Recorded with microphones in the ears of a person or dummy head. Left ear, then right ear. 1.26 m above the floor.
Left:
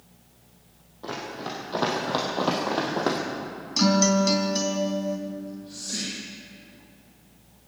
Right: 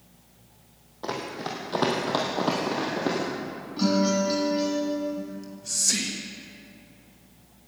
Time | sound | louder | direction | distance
1.0 | running footsteps | right 2 dB | 25° right (ahead or behind) | 3 m
3.8 | a guitar | left 3 dB | 65° left (ahead or behind) | 2.5 m
5.3 | whispering | right 3 dB | 60° right (ahead or behind) | 1.4 m